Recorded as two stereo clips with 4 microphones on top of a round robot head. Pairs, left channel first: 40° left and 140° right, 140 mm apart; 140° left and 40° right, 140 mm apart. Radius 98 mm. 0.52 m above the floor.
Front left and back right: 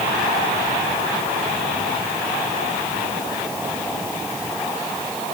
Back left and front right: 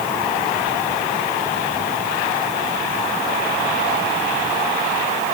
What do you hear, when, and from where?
Only background noise.